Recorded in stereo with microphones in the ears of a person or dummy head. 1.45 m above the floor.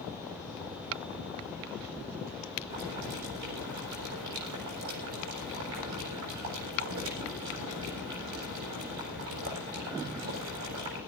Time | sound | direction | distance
2.7 | boiling | 75° right (ahead or behind) | 7.5 m